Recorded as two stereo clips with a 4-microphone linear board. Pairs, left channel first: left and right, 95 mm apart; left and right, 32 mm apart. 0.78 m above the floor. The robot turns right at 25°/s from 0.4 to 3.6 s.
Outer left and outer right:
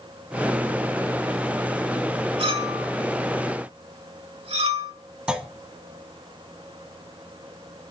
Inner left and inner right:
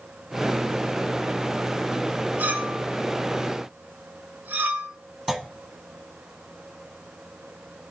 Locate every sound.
2.4 s a clink: 70° right (ahead or behind), 1.6 m; by 4.9 s 80° right, 1.6 m
5.3 s a clunk: 10° right (ahead or behind), 0.9 m